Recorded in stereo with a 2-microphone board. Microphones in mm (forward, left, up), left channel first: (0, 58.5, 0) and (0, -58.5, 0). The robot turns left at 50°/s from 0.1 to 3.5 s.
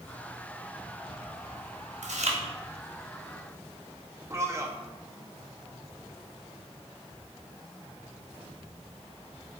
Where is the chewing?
85° right, 1.1 m; by 2.4 s 65° right (ahead or behind), 1.1 m.